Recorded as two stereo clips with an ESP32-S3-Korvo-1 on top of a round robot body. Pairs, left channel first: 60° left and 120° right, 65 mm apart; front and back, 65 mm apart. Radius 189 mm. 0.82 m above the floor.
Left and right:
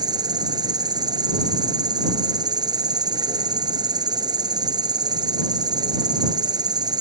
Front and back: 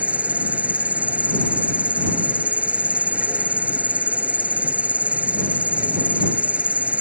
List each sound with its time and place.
0.0 s an insect: 110° right